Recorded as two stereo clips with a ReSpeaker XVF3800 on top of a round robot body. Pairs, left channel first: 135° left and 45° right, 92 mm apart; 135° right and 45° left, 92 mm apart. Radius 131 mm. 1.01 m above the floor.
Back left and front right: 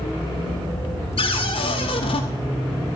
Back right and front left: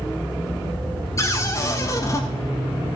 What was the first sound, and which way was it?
A cupboard door, 165° left.